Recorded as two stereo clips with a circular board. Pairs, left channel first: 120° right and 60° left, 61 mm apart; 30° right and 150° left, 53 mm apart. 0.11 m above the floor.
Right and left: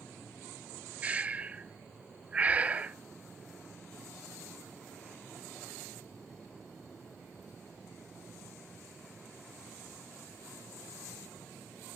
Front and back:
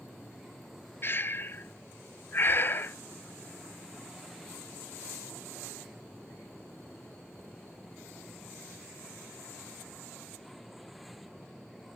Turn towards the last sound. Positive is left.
turn(degrees=0)